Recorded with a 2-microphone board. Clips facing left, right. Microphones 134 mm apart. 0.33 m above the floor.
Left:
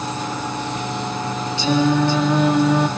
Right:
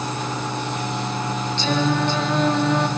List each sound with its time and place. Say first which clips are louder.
1.6 s singing: left 5 dB; 10° left (ahead or behind), 4 m